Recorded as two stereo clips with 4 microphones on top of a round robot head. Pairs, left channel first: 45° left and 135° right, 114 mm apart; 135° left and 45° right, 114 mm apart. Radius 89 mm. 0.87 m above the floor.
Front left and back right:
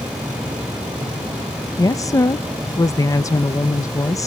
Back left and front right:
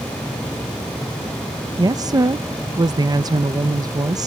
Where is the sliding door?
I don't hear a sliding door.